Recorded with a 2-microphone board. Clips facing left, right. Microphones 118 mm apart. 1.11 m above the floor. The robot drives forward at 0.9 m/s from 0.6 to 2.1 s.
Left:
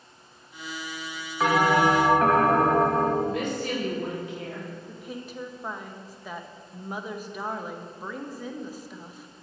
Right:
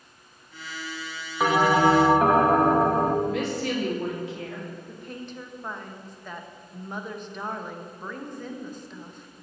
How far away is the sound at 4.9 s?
About 0.7 m.